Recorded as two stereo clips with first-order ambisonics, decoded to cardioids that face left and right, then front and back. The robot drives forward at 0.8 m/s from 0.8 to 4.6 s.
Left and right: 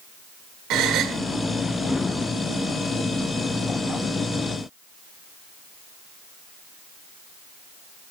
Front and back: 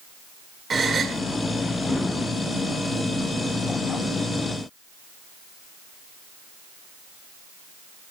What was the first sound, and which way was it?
A gasp, 110° right.